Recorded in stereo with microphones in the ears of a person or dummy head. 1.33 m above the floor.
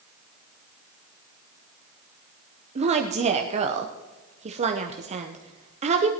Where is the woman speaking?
35° right (ahead or behind), 0.9 m.